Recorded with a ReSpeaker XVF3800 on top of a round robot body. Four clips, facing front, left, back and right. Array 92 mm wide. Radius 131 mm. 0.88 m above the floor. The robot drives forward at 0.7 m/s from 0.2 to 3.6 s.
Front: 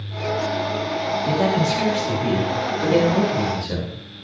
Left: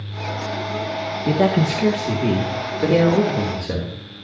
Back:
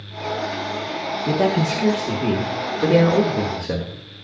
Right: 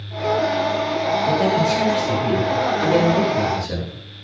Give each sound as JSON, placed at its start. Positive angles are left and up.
{"t": 1.3, "sound": "a man speaking", "azimuth_deg": 115, "distance_m": 1.9}